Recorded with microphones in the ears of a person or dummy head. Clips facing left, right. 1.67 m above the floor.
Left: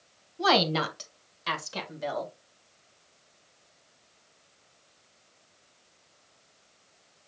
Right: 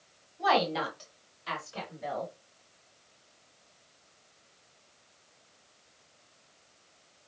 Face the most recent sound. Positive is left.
turn(degrees=85)